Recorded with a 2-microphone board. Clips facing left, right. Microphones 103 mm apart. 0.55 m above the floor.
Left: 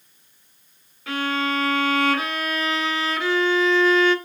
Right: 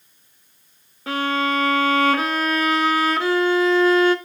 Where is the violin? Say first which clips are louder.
Right 3 dB; 35° right (ahead or behind), 1.1 m.